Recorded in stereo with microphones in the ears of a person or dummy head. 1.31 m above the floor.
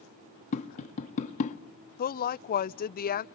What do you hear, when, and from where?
0.5 s tapping: 45° left (ahead or behind), 1.4 m
2.0 s a woman speaking: 40° left (ahead or behind), 0.7 m